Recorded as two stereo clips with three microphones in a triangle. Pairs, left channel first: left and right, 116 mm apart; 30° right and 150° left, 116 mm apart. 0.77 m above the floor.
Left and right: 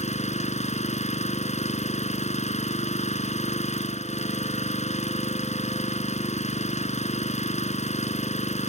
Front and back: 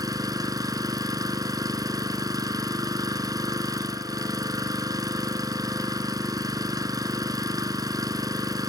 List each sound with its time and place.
0.0 s an engine running: 90° left